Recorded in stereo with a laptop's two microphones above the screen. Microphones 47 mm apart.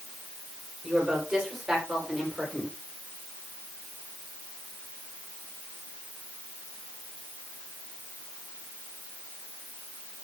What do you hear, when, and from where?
0.8 s a woman speaking: 15° right (ahead or behind), 4.5 m; by 2.8 s 5° left (ahead or behind), 4 m